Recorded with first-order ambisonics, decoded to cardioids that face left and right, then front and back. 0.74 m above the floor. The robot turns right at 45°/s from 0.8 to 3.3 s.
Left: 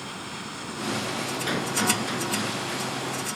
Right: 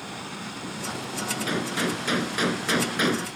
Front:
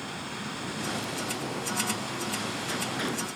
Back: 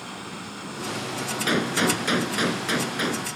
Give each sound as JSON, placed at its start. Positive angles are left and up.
{"t": 1.5, "sound": "a gunshot", "azimuth_deg": 175}